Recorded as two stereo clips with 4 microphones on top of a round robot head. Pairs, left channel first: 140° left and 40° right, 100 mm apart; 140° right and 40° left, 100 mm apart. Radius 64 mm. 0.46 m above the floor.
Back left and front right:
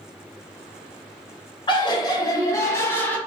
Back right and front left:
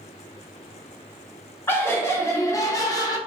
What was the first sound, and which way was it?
Laughter, 160° left.